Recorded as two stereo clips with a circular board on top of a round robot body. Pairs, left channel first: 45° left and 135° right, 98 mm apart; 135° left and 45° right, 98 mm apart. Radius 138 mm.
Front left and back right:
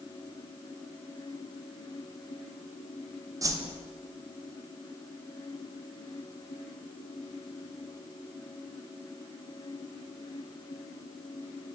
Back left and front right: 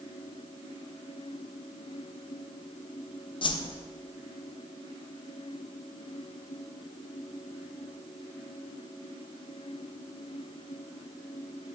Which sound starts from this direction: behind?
A whoosh, at 3.4 s.